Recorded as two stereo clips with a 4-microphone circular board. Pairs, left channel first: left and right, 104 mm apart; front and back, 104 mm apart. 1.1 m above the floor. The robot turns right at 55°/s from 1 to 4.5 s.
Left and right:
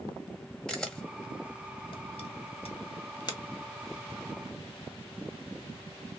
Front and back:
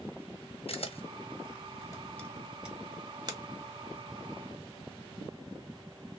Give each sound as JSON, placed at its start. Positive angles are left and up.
{"t": 0.7, "sound": "a camera shutter", "azimuth_deg": 5, "distance_m": 1.0}